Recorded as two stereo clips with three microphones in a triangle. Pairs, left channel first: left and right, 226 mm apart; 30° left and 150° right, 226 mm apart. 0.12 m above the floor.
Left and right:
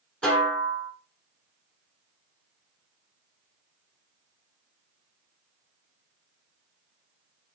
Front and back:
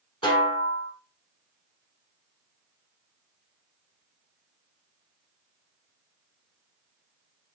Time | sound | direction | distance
0.2 | a snare drum | 10° left | 1.2 m